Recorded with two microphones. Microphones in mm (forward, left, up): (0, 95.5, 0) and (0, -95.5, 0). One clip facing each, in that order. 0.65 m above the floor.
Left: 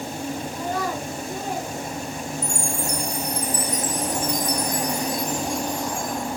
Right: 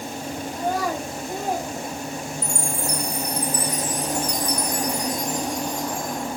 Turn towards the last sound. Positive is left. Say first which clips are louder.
# even
turn(degrees=-35)  # may be behind; listen again after turning